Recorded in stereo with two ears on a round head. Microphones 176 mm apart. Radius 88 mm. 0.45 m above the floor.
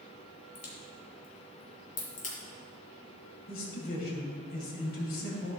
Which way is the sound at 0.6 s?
40° left (ahead or behind).